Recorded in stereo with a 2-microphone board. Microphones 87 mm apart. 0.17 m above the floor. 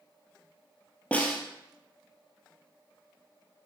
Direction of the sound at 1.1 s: 15° left (ahead or behind).